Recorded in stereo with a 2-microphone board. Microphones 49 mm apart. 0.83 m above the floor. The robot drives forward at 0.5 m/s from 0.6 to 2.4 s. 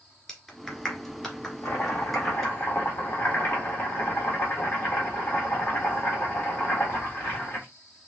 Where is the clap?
15° left (ahead or behind), 1.7 m; by 2.5 s 10° left (ahead or behind), 2.5 m.